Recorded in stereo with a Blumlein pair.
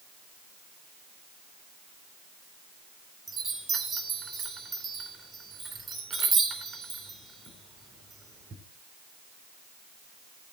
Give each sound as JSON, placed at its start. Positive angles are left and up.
{"t": 3.3, "sound": "a chime", "azimuth_deg": -15, "distance_m": 3.5}